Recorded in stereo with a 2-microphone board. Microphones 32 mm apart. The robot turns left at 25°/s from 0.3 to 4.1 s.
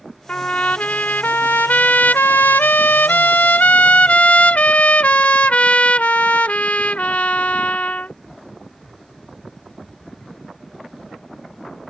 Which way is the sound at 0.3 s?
145° left.